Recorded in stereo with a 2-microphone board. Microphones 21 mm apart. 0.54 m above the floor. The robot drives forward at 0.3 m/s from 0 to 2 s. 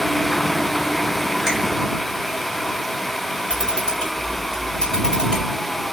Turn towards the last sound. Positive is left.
turn(degrees=25)  # may be behind; listen again after turning